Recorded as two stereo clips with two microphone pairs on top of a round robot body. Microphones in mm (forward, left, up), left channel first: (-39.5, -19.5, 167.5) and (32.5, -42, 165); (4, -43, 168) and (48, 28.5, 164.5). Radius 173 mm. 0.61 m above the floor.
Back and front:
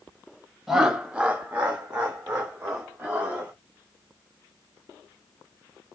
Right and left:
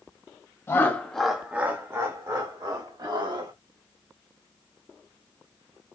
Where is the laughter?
95° right, 1.2 m; by 3.5 s 45° left, 2.5 m.